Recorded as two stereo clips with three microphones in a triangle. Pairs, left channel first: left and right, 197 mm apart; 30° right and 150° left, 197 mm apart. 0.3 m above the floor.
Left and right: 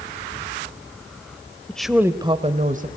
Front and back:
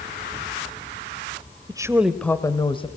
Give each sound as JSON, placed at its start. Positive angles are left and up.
{"t": 1.7, "sound": "a woman speaking", "azimuth_deg": 160, "distance_m": 1.0}